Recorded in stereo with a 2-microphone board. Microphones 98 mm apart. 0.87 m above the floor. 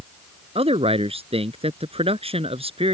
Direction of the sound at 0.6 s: 80° right.